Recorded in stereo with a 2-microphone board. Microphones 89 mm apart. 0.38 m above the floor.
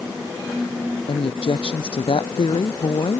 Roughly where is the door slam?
No door slam in this recording.